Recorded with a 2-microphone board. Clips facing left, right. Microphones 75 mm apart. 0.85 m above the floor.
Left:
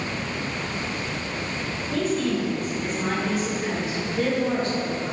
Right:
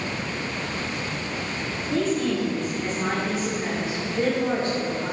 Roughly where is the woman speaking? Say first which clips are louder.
Right 1 dB; right.